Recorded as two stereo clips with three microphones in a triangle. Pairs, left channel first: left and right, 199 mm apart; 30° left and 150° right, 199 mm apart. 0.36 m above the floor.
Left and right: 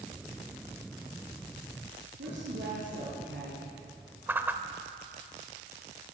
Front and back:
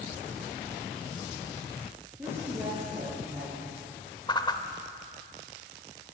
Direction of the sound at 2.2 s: 70° right.